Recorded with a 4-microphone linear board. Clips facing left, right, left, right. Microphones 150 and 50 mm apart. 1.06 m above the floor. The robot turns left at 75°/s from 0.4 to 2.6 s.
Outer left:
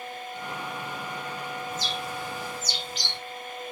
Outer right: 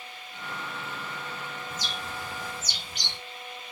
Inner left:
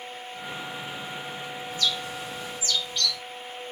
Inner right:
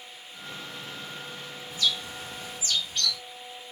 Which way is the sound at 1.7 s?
Centre (ahead or behind).